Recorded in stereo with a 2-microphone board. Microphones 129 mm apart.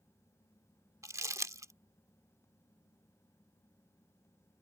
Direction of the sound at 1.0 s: 25° right (ahead or behind).